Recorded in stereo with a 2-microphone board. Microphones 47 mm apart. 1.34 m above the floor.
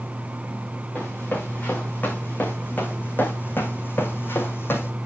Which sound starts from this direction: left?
Running footsteps, at 0.9 s.